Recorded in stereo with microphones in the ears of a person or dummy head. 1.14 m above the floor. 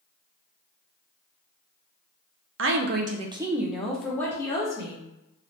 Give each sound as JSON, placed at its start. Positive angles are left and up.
{"t": 2.6, "sound": "a woman speaking", "side_deg": -60, "distance_m": 0.5}